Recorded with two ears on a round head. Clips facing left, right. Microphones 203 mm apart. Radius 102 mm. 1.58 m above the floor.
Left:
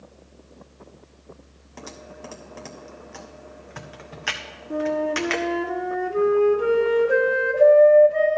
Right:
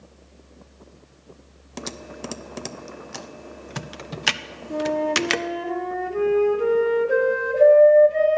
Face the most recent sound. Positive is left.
turn(degrees=5)  # may be behind; listen again after turning